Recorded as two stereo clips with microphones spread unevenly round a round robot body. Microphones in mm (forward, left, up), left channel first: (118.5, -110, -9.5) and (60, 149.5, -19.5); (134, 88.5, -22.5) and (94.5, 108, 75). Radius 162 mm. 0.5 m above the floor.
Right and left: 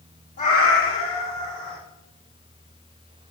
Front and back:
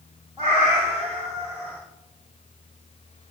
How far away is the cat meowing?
About 4.5 m.